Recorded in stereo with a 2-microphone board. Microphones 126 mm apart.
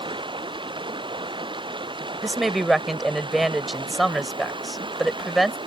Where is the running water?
40° right (ahead or behind).